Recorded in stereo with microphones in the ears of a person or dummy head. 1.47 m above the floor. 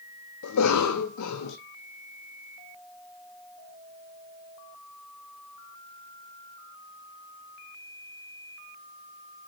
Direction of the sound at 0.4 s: 90° left.